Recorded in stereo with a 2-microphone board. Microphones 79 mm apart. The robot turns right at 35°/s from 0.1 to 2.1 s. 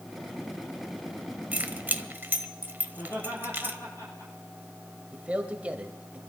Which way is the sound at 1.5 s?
20° right (ahead or behind).